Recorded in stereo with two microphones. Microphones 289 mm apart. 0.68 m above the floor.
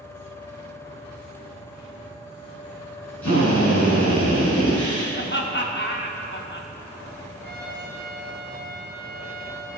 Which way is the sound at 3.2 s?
85° left.